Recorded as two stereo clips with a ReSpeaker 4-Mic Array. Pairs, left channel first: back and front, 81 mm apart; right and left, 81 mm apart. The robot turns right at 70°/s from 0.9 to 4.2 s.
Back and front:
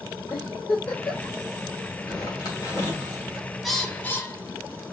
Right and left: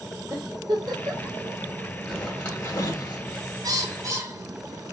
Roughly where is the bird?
Left.